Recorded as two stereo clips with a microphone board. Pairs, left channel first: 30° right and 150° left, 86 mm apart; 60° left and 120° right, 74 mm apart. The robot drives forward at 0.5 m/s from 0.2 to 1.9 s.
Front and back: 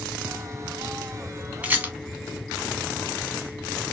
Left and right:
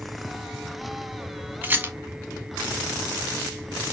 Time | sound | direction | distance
1.6 | a rattle | 155° right | 0.7 m